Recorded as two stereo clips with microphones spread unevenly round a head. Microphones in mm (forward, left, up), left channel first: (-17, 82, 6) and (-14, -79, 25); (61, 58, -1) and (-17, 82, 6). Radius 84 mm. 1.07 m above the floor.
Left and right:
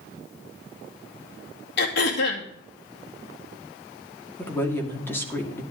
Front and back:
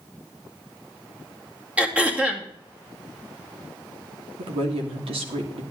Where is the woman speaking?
170° left, 2 m.